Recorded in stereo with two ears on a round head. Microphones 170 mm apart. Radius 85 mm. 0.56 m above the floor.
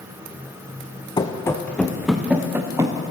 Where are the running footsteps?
20° left (ahead or behind), 1.9 m; by 3.0 s 15° right (ahead or behind), 3 m.